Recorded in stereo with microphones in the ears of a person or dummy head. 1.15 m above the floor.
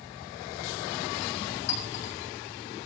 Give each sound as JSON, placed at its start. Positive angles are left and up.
{"t": 1.7, "sound": "a clink", "side_deg": 70, "distance_m": 5.0}